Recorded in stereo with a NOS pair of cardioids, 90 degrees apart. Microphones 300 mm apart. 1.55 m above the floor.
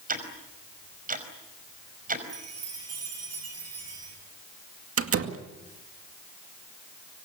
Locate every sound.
0.1 s ticking: 30° right, 5 m
2.3 s a chime: 55° right, 9.5 m
5.0 s a door slam: 50° right, 2 m